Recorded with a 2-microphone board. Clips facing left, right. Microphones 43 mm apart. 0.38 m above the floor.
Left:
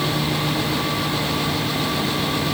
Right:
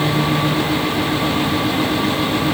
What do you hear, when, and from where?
Only background noise.